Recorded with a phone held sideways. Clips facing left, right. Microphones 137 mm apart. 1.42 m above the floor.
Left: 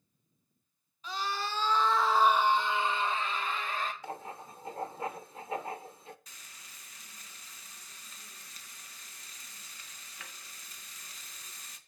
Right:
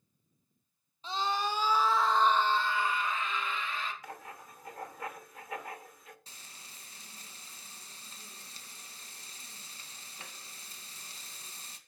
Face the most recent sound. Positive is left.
turn(degrees=-30)  # may be behind; listen again after turning